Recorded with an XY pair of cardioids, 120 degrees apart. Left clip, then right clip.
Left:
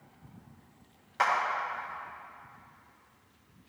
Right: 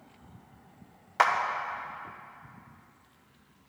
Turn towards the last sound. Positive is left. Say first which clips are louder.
# right 3 dB
turn(degrees=-45)